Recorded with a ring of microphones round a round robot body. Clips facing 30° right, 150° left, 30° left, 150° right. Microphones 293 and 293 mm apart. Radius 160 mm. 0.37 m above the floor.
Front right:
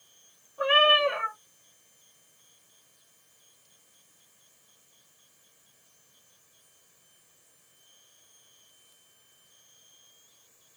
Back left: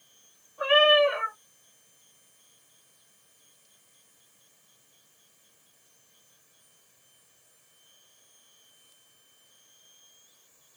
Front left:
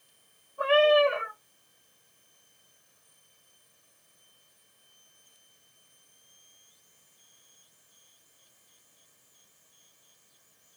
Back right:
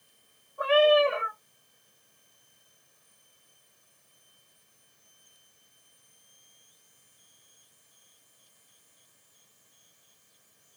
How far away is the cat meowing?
About 1.8 m.